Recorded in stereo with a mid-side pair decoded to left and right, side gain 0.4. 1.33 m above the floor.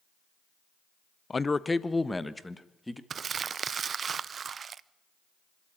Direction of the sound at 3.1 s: 50° right.